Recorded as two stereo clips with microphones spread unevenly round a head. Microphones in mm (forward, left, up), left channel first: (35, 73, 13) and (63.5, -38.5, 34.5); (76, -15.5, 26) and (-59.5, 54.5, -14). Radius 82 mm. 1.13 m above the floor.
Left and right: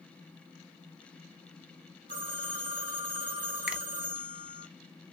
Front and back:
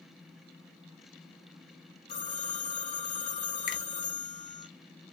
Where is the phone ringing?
85° right, 1.4 m.